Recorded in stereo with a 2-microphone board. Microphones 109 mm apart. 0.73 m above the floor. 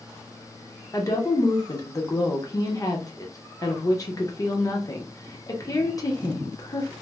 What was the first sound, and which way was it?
A woman speaking, 35° left (ahead or behind).